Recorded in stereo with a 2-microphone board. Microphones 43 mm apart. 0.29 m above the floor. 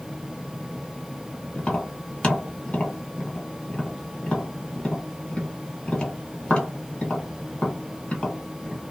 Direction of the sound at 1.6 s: 20° left (ahead or behind).